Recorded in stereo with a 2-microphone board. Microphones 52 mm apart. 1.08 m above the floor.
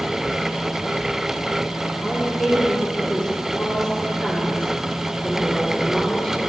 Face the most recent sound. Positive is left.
turn(degrees=15)  # may be behind; listen again after turning